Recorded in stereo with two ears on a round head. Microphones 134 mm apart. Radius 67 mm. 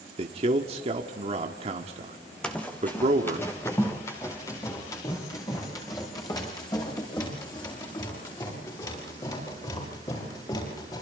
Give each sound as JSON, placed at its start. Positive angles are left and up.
{"t": 0.2, "sound": "a man speaking", "side_deg": -40, "distance_m": 1.6}
{"t": 2.4, "sound": "running footsteps", "side_deg": 5, "distance_m": 2.5}